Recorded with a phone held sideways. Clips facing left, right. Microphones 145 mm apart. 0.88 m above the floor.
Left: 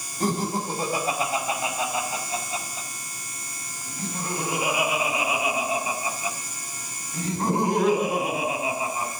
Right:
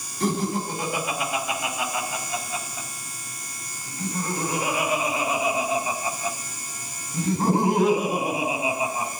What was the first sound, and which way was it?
Laughter, 45° left (ahead or behind).